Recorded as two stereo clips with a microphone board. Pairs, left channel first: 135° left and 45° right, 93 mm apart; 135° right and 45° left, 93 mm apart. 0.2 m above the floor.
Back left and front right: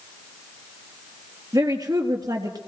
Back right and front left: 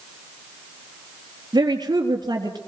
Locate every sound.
1.5 s a woman speaking: 5° left, 3.5 m